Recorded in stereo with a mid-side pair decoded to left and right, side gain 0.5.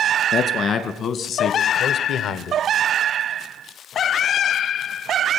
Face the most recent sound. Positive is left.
turn(degrees=70)